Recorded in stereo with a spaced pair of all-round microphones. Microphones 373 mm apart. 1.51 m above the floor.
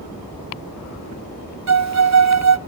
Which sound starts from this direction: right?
A violin, at 1.7 s.